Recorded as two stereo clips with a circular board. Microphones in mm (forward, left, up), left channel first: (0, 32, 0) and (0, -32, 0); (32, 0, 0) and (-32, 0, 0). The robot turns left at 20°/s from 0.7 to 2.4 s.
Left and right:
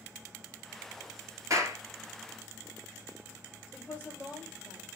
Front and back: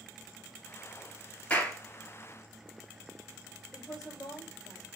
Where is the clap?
65° right, 1.6 m; by 1.8 s 70° right, 1.6 m.